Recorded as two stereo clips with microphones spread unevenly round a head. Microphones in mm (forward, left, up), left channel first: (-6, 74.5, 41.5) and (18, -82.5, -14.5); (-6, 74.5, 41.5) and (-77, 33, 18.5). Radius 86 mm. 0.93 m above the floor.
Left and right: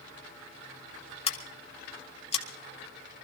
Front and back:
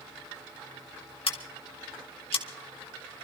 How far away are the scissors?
About 1.9 m.